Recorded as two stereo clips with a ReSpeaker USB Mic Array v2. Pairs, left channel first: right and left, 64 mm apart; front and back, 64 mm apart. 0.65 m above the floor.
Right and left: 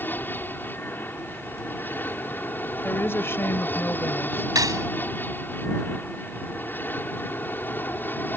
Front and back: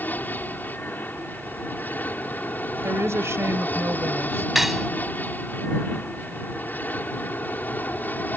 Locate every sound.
0.0 s an aircraft: 45° right
2.8 s a woman speaking: 140° right
4.5 s cutlery clinking: 95° left